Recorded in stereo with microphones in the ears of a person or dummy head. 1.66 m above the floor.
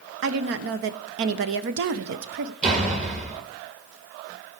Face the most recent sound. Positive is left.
turn(degrees=-40)  # may be behind; listen again after turning